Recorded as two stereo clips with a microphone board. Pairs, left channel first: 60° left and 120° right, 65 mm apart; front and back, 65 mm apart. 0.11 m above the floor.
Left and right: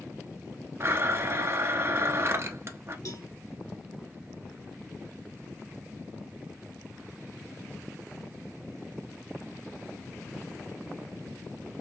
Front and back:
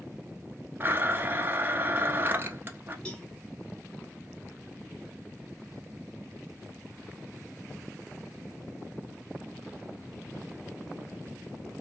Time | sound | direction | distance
0.8 | a blender | 140° right | 0.9 m
3.0 | a cowbell | 70° left | 1.1 m